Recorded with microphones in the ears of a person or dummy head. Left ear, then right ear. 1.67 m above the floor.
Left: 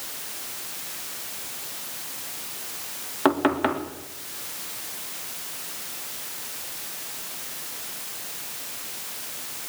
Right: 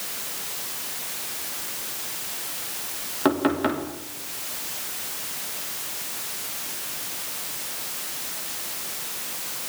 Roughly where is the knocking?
Left.